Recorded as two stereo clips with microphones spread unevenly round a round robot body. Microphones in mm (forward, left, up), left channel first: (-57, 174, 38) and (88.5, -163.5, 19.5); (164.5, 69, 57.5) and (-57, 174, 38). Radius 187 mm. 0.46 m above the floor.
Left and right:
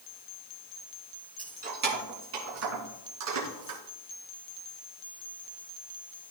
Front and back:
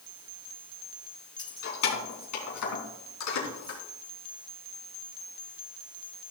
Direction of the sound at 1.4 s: 5° left.